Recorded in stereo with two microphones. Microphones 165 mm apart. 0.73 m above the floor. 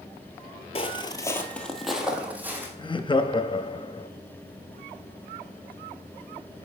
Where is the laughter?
30° left (ahead or behind), 0.6 m.